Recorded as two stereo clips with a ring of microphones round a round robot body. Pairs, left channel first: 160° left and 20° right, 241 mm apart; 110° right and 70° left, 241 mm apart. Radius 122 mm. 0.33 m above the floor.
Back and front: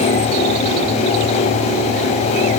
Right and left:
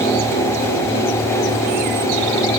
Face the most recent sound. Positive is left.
No sound to turn to.